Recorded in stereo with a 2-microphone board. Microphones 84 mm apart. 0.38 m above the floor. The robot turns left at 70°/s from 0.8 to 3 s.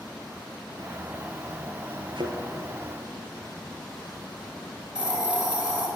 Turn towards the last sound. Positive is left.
turn(degrees=-15)  # may be behind; listen again after turning